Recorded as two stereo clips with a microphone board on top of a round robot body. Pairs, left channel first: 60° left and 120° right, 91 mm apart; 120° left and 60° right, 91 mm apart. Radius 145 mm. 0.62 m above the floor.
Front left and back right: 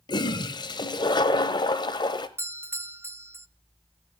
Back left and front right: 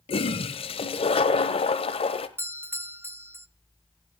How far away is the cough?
No cough in this recording.